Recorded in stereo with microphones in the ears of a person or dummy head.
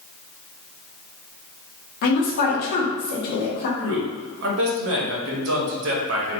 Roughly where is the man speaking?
Right.